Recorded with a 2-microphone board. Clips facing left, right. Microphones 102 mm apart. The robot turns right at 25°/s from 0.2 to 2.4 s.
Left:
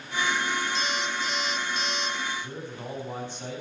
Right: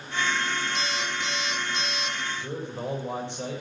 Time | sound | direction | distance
0.8 | an alarm clock | 120° right | 5.5 m
2.4 | a man speaking | 65° right (ahead or behind) | 6.5 m